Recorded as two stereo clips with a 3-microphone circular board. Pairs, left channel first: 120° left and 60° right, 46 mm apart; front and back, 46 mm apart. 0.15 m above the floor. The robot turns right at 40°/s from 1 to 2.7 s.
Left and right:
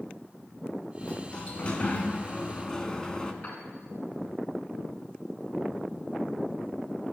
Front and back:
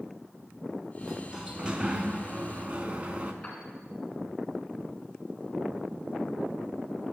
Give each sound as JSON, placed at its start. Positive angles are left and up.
{"t": 1.0, "sound": "a sliding door", "azimuth_deg": 110, "distance_m": 0.6}
{"t": 3.4, "sound": "a piano", "azimuth_deg": 75, "distance_m": 2.5}